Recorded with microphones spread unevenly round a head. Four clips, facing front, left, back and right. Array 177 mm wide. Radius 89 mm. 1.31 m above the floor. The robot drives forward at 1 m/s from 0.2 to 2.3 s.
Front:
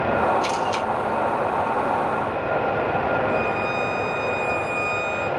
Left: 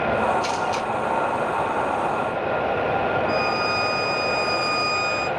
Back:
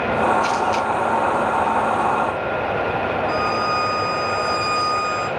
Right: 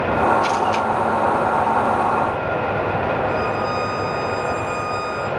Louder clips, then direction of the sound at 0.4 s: Right 5 dB, back 4 dB; 20° left.